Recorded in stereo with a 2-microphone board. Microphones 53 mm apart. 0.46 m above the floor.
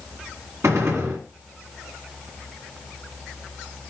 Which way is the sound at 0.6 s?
65° right (ahead or behind).